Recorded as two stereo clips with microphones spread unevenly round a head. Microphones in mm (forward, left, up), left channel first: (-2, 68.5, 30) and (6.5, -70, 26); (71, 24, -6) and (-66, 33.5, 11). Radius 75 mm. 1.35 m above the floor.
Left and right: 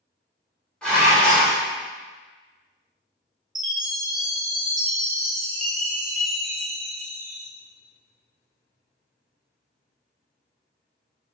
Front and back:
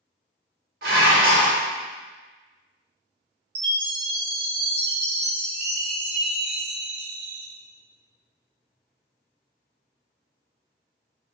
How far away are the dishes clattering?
About 1.2 m.